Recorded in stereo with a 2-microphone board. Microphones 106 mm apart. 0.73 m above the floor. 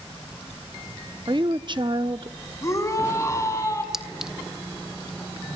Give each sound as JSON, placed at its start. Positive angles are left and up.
{"t": 1.3, "sound": "a woman speaking", "side_deg": -50, "distance_m": 0.8}
{"t": 2.6, "sound": "a shout", "side_deg": 30, "distance_m": 5.0}
{"t": 3.9, "sound": "a clink", "side_deg": -5, "distance_m": 1.0}